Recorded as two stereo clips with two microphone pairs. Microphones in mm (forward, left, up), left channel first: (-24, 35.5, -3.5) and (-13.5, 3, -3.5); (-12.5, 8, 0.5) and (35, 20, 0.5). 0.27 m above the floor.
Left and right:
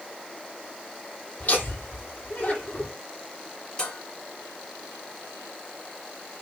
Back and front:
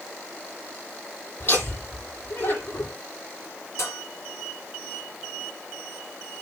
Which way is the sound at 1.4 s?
155° left.